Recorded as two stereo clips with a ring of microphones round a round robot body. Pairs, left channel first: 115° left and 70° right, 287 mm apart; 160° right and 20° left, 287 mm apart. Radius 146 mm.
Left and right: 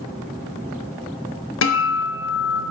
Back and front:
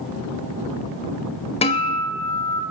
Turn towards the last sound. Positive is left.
turn(degrees=140)